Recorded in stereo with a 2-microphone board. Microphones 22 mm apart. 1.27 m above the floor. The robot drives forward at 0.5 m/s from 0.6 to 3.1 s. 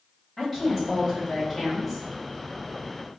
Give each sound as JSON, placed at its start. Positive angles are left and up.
{"t": 0.4, "sound": "a woman speaking", "side_deg": 5, "distance_m": 1.5}